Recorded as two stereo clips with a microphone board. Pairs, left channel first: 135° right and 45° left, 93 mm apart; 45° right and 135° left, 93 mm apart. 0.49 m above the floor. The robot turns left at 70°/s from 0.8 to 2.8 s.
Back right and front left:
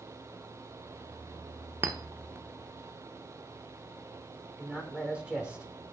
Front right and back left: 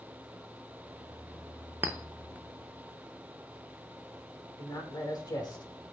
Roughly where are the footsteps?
No footsteps in this recording.